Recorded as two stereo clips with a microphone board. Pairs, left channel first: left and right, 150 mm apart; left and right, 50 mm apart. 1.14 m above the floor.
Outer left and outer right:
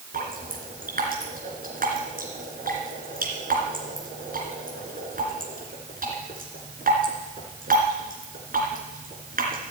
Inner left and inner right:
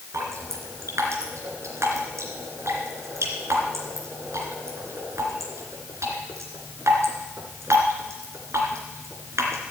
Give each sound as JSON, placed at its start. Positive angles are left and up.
{"t": 0.1, "sound": "dripping", "side_deg": -70, "distance_m": 3.0}